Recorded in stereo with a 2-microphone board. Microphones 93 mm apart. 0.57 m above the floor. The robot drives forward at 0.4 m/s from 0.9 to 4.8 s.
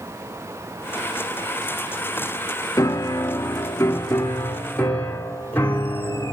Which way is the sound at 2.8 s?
35° left (ahead or behind).